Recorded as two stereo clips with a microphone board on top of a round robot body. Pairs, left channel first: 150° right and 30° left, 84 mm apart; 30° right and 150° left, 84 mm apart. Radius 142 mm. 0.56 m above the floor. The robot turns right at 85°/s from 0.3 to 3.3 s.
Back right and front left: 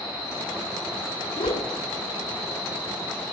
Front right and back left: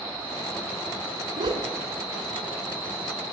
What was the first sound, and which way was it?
A whoosh, 175° right.